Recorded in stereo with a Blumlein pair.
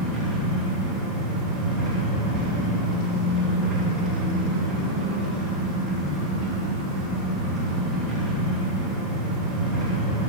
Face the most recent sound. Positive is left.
turn(degrees=-25)